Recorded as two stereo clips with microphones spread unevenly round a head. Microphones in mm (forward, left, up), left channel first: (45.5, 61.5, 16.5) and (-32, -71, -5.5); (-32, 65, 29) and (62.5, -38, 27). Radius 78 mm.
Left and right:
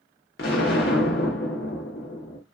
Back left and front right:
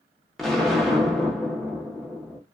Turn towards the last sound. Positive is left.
turn(degrees=45)